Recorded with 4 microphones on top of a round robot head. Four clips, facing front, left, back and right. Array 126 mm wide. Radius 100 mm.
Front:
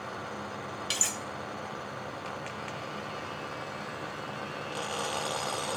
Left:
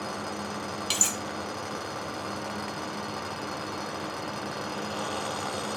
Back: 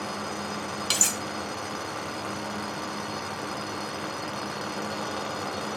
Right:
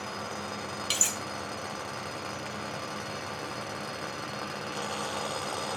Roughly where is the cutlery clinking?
Behind.